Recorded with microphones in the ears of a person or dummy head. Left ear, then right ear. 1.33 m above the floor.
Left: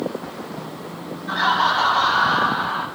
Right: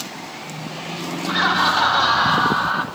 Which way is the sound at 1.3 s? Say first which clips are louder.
Right 1 dB; 50° right (ahead or behind).